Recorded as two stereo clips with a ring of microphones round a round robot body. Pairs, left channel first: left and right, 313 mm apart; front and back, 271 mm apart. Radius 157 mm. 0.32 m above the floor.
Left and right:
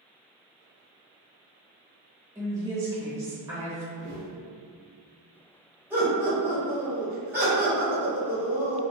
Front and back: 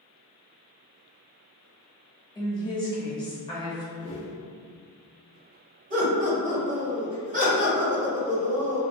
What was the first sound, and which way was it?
A woman speaking, 35° right.